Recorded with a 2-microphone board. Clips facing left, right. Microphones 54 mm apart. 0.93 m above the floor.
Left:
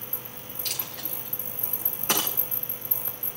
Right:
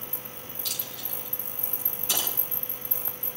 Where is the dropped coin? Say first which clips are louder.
Left 3 dB; 45° left (ahead or behind), 3 m.